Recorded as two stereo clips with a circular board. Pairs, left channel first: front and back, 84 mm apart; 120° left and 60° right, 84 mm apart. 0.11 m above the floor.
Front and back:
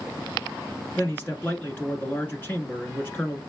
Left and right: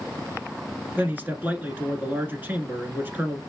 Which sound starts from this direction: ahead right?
A man speaking, at 1.0 s.